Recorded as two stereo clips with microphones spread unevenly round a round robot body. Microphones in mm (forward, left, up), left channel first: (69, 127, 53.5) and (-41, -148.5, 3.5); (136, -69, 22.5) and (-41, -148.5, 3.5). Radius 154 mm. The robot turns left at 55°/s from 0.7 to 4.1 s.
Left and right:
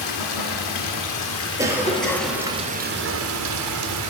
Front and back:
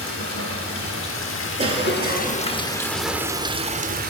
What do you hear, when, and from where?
0.0 s running water: 60° left, 1.5 m; by 4.1 s 125° right, 1.5 m
1.6 s a cough: 170° right, 1.4 m; by 2.4 s 150° left, 1.4 m